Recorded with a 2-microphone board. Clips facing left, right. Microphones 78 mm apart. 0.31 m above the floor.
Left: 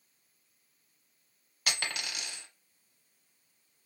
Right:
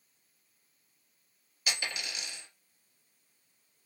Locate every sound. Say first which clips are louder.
1.7 s a dropped coin: left 1 dB; 70° left (ahead or behind), 1.0 m